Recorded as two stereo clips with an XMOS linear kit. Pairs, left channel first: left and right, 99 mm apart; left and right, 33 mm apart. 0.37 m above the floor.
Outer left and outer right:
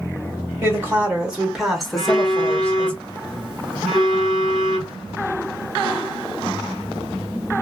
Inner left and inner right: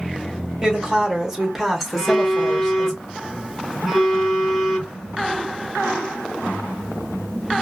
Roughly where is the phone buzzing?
Centre.